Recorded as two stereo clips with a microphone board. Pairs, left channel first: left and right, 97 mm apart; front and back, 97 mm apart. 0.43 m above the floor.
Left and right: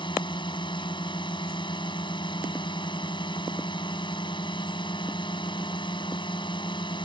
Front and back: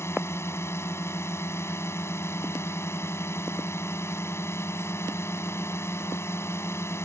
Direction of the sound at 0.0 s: 60° left.